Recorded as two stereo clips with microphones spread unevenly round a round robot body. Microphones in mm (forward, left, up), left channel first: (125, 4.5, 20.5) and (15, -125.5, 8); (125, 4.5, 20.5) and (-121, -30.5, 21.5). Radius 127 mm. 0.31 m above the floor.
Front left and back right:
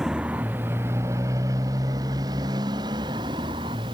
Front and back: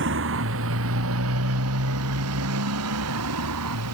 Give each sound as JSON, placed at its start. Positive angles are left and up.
{"t": 0.0, "sound": "a motorcycle", "azimuth_deg": 140}